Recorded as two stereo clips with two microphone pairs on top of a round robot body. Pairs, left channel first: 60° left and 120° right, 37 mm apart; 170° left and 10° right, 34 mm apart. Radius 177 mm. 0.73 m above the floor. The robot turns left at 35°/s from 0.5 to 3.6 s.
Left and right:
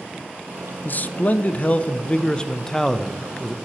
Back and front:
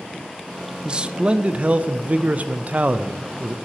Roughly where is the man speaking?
Ahead left.